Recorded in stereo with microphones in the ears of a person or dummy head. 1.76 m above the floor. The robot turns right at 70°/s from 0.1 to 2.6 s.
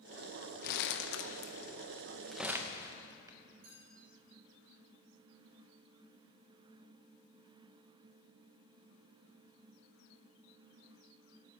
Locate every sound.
0.6 s crumpling: 55° left (ahead or behind), 0.9 m; by 3.4 s 20° right (ahead or behind), 0.9 m
3.6 s a clink: 55° right (ahead or behind), 5.5 m